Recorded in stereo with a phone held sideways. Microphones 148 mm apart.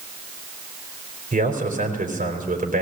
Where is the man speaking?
80° right, 4 m.